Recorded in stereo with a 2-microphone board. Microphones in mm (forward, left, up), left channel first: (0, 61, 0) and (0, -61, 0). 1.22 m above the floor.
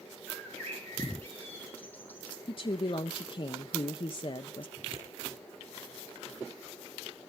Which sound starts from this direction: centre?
A bird, at 0.3 s.